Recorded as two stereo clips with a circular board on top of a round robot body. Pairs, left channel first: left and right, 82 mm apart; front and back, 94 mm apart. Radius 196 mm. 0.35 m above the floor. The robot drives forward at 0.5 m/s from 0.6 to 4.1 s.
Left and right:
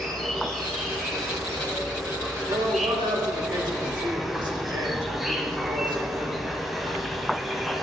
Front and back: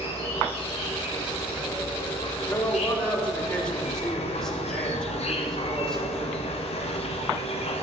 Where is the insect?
Straight ahead, 2.5 m.